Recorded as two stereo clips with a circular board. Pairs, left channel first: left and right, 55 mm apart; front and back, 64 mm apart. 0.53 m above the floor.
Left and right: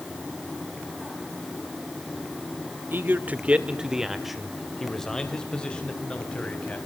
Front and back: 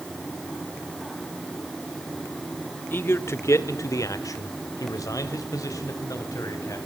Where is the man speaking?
50° right, 1.5 m; by 6.8 s 25° left, 3.5 m.